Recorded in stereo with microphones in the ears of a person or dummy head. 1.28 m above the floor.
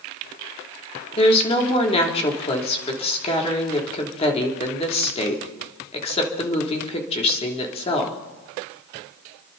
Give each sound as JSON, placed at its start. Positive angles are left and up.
{"t": 1.2, "sound": "a woman speaking", "side_deg": 30, "distance_m": 3.0}